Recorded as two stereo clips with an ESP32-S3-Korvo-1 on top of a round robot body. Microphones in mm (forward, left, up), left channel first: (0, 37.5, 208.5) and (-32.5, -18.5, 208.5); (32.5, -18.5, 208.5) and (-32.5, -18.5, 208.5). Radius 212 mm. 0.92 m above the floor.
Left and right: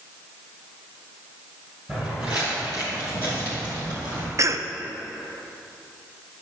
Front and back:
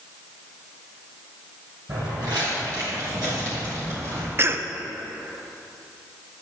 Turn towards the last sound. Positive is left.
turn(degrees=-140)